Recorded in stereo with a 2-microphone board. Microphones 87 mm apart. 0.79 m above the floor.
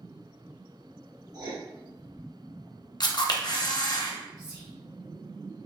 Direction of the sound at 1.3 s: 45° right (ahead or behind).